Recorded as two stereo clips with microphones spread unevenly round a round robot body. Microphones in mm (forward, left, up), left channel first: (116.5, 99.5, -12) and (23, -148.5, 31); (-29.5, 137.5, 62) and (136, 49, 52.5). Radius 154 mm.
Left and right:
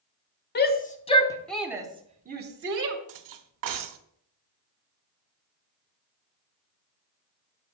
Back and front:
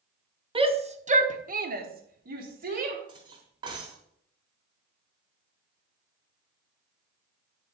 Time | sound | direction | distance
0.6 | a shout | 30° left | 1.7 m
3.1 | cutlery clinking | 100° right | 1.0 m